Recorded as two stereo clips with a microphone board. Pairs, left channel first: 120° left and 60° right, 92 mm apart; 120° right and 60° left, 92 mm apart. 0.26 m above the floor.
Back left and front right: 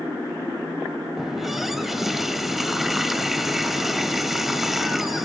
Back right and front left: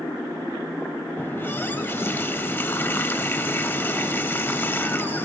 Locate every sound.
1.2 s a running tap: 145° right, 0.6 m